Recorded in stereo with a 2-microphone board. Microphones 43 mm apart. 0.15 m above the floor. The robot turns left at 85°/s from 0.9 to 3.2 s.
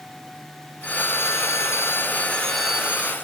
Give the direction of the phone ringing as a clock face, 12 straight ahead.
7 o'clock.